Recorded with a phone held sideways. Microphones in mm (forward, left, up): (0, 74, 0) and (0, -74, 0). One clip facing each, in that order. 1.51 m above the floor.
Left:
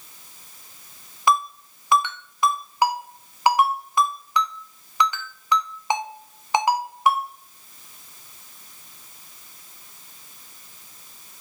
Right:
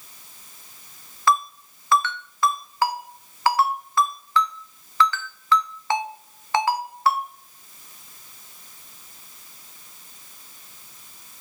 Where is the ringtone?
15° left (ahead or behind), 0.5 m.